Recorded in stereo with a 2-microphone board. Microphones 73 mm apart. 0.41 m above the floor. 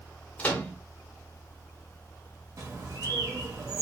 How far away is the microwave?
About 0.7 m.